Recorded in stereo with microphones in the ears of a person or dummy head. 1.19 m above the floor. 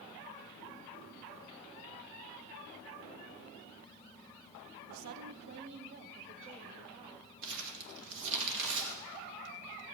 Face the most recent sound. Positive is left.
turn(degrees=-65)  # may be behind; listen again after turning